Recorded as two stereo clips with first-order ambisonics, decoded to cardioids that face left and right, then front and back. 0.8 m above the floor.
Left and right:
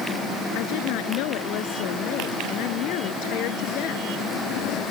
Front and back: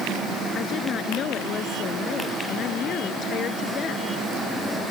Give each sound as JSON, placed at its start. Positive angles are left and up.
{"t": 0.6, "sound": "a woman speaking", "azimuth_deg": 60}